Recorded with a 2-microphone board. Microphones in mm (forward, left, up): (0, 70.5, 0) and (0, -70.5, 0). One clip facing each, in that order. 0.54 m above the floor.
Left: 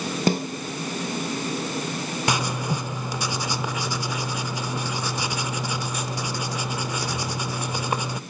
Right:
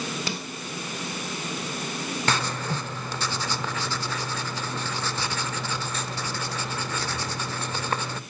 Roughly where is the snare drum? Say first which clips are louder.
Left 11 dB; left.